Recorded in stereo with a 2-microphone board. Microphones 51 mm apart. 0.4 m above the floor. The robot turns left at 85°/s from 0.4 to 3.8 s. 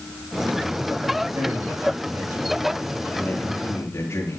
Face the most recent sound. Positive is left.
turn(degrees=110)